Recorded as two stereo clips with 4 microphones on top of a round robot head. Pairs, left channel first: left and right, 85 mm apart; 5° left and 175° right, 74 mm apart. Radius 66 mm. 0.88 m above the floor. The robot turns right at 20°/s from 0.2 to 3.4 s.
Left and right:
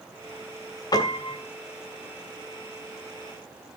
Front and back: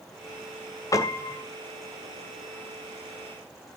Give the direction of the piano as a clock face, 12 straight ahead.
10 o'clock.